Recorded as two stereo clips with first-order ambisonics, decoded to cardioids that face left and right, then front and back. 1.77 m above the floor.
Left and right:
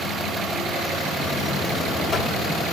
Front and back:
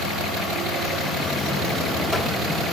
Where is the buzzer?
65° left, 0.7 m.